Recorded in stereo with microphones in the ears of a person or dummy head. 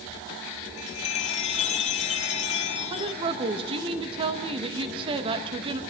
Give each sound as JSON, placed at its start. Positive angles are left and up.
{"t": 0.8, "sound": "a chime", "side_deg": 45, "distance_m": 1.1}
{"t": 2.9, "sound": "a woman speaking", "side_deg": -30, "distance_m": 1.8}